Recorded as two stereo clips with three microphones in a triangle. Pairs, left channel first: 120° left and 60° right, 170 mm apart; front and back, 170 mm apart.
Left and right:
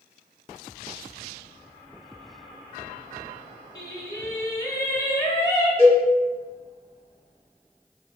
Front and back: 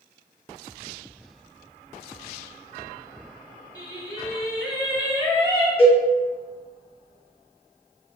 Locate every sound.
3.8 s singing: 60° left, 0.6 m
5.8 s a cowbell: 120° right, 1.0 m